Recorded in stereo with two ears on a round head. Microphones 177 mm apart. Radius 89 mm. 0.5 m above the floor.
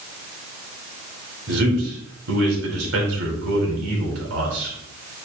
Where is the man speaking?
80° right, 5 m.